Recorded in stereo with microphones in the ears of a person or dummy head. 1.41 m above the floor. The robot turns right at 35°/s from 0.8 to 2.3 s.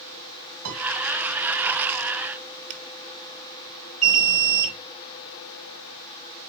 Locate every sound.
0.7 s a piano: 85° right, 2.5 m; by 0.8 s 80° right, 2.5 m
2.7 s a finger snap: 40° right (ahead or behind), 1.3 m
4.0 s an alarm: 5° right (ahead or behind), 7 m